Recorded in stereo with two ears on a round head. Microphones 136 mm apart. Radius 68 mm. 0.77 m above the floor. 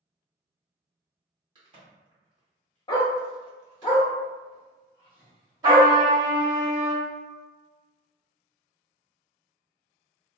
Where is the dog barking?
30° left (ahead or behind), 0.7 m.